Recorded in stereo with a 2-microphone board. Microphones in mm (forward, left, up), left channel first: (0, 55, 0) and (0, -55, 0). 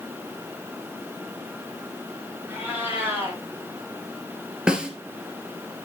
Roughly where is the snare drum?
Centre.